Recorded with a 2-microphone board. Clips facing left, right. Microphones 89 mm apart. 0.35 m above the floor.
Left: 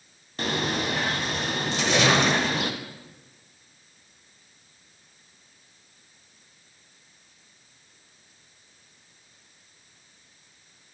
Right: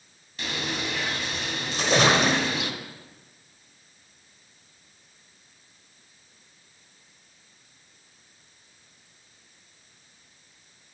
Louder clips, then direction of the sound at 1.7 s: Right 1 dB; 45° right (ahead or behind).